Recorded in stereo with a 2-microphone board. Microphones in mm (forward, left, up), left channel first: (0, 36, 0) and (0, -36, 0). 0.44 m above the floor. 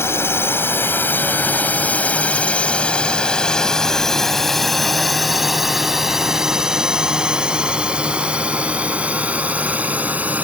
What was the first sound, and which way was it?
A drone, 35° left (ahead or behind).